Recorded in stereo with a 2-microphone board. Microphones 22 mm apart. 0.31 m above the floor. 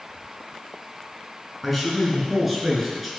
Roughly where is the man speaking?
Centre.